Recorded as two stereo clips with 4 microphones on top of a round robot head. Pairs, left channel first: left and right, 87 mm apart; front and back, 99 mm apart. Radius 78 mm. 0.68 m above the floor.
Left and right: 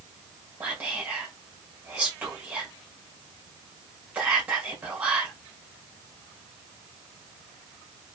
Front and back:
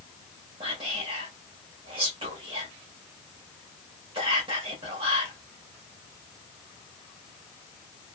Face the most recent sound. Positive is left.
turn(degrees=-160)